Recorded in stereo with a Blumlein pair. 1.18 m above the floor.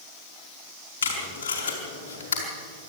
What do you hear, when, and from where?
1.0 s tape being pulled: 65° left, 5 m